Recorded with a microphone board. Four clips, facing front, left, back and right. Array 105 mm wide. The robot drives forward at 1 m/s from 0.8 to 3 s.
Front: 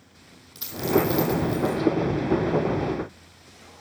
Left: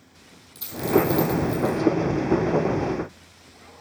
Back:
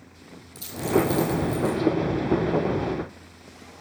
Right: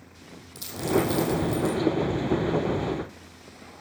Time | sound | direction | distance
0.6 | a dropped coin | 5° right | 3.5 m